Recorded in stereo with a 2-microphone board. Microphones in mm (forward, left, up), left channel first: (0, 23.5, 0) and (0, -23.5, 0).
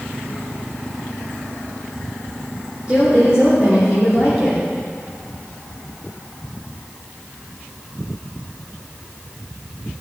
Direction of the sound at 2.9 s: 25° right (ahead or behind).